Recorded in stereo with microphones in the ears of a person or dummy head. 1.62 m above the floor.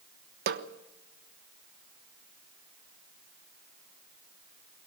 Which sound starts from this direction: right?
A snare drum, at 0.5 s.